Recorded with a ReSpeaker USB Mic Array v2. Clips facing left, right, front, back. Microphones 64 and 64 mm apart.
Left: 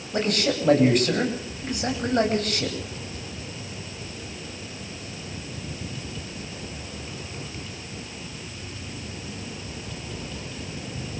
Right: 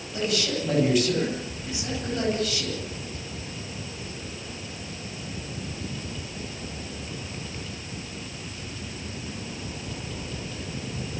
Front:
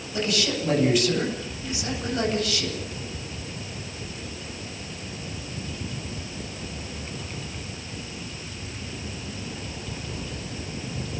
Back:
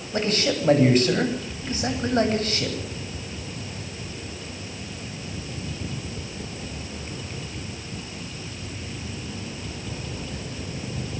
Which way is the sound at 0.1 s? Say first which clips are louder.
Left 3 dB, back 2 dB; 130° left.